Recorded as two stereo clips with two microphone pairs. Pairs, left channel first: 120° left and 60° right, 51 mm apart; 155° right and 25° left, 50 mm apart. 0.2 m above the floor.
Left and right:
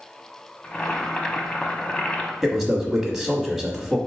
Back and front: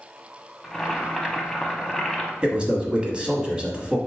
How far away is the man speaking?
About 1.0 m.